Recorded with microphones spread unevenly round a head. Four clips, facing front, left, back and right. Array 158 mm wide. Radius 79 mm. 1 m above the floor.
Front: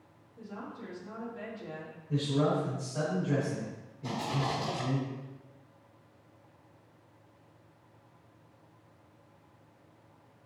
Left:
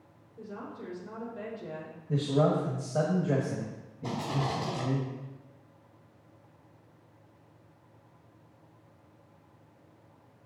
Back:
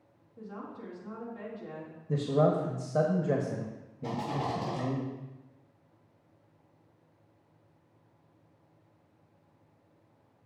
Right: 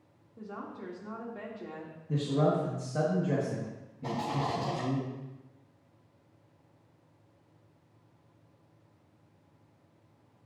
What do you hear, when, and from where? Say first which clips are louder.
0.4 s a woman speaking: even, even; 105° right, 2.5 m
2.1 s a man speaking: left 2 dB, back 3 dB; 170° left, 1.1 m
4.0 s a rattle: even, even; 120° right, 3.5 m